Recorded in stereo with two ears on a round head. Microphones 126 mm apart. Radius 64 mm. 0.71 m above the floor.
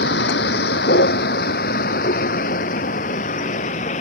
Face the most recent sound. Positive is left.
turn(degrees=55)  # may be behind; listen again after turning